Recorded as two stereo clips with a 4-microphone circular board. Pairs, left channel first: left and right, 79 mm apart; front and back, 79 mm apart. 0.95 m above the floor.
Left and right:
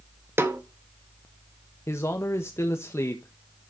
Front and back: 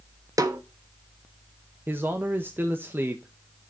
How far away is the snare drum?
About 1.3 m.